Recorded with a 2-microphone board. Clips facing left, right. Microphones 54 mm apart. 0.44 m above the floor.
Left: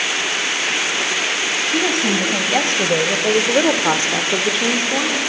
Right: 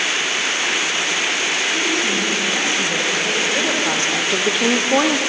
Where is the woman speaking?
70° left (ahead or behind), 3 m; by 5.2 s 40° right (ahead or behind), 1.2 m.